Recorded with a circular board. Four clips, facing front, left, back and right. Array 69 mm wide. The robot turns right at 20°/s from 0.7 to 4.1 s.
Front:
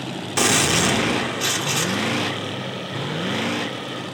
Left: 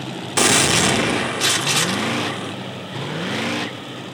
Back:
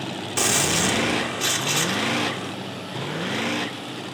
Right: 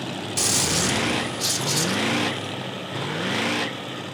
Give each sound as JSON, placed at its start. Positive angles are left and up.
{"t": 0.4, "sound": "a gunshot", "azimuth_deg": 75, "distance_m": 1.3}